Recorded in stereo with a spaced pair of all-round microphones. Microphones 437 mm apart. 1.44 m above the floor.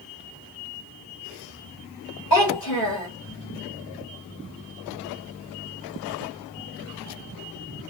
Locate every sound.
2.3 s a child speaking: 65° left (ahead or behind), 1.4 m